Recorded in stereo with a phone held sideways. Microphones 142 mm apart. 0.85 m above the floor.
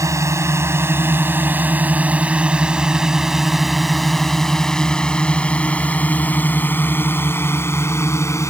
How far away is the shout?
No shout in this recording.